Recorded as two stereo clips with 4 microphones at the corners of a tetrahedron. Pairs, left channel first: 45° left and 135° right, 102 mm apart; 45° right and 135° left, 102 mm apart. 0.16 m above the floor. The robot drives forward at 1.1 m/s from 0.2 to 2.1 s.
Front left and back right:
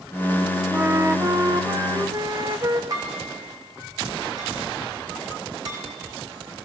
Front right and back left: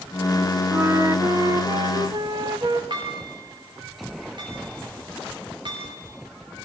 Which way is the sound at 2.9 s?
175° left.